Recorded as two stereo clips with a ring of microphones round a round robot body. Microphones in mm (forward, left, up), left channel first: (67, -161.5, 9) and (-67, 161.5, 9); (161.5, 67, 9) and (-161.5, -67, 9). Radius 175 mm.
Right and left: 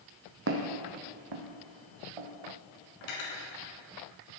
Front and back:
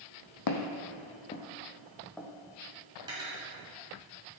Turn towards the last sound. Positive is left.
turn(degrees=-80)